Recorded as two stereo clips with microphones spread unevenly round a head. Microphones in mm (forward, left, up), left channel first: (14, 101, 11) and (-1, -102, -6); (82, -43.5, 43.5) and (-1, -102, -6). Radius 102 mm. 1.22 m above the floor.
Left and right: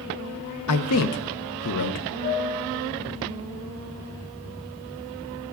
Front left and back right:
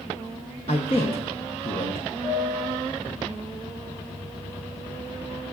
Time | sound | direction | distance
0.7 | a man speaking | 100° left | 0.6 m
2.2 | a piano | 125° left | 4.5 m